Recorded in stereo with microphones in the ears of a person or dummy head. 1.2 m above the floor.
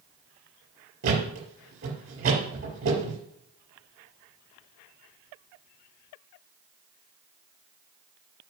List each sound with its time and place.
1.0 s a thud: 65° right (ahead or behind), 5.5 m